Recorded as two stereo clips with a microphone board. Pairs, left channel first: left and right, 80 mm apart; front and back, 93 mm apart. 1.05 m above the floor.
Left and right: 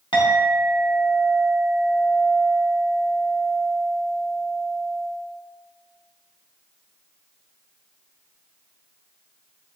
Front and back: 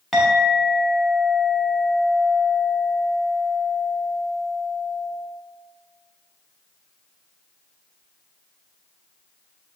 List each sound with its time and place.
0.1 s a clink: 85° left, 1.0 m